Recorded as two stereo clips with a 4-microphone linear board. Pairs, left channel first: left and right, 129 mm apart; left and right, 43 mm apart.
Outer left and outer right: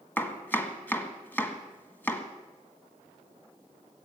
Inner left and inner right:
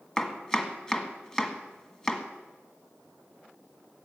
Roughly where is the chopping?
Centre.